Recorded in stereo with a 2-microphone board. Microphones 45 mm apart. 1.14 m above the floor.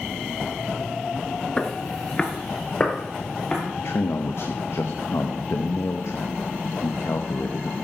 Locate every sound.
1.6 s footsteps: 20° left (ahead or behind), 1.1 m; by 3.6 s 15° left (ahead or behind), 2 m
3.8 s a man speaking: 65° left (ahead or behind), 0.9 m